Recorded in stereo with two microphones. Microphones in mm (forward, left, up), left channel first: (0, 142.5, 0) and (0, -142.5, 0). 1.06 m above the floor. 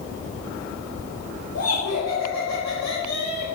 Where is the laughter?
55° left (ahead or behind), 1.7 m; by 3.6 s 80° left, 2 m.